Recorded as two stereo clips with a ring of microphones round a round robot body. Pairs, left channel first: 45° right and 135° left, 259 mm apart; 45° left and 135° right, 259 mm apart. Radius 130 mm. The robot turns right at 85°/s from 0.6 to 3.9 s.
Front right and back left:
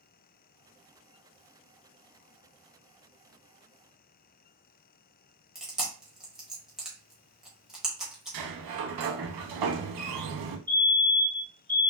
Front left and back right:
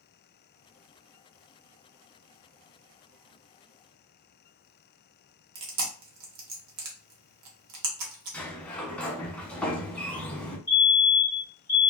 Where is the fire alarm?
85° left, 1.8 m.